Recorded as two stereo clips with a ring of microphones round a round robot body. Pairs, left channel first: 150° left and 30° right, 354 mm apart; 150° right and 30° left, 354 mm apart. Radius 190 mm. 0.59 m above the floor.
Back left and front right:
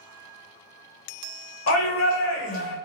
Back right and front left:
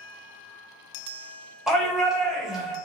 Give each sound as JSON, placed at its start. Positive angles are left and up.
{"t": 1.7, "sound": "a shout", "azimuth_deg": 120, "distance_m": 1.5}